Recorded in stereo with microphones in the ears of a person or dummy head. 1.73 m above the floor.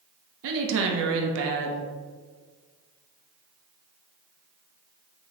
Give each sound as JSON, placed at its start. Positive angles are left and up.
{"t": 0.4, "sound": "a woman speaking", "side_deg": -65, "distance_m": 0.7}